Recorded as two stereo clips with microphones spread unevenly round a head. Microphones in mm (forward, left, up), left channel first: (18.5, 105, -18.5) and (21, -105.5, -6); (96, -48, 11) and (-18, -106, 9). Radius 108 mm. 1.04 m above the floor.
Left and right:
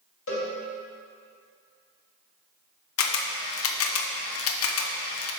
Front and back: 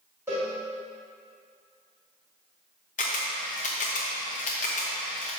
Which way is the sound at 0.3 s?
125° left.